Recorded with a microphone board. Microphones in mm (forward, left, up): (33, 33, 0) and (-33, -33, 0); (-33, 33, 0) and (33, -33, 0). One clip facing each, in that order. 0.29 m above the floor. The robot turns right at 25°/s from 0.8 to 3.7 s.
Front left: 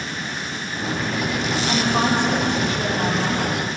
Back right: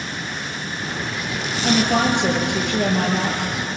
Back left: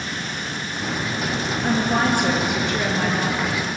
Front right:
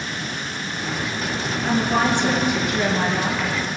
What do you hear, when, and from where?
1.6 s a woman speaking: 160° right, 7 m; by 3.4 s 115° right, 7 m